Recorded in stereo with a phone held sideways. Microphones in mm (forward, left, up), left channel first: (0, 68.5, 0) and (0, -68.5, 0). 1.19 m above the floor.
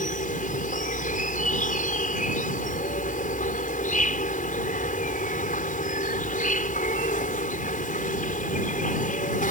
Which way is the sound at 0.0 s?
70° left (ahead or behind).